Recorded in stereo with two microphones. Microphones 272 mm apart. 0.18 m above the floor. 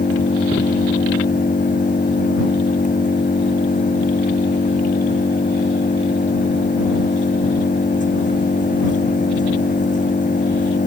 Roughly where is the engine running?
Left.